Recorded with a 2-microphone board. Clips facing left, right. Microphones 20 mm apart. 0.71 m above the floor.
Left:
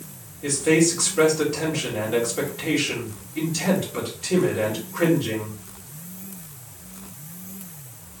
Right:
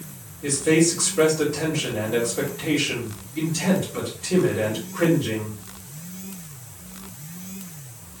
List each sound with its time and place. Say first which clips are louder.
0.4 s a man speaking: even; 25° left (ahead or behind), 1.8 m